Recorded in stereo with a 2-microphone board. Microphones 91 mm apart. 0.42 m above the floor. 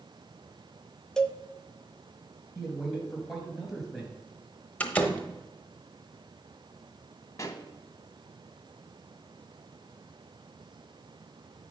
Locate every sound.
1.2 s a cowbell: 5° left (ahead or behind), 0.6 m
2.5 s a man speaking: 5° right (ahead or behind), 3 m
4.8 s a door slam: 15° left (ahead or behind), 1.0 m
7.4 s a pop: 35° left (ahead or behind), 1.0 m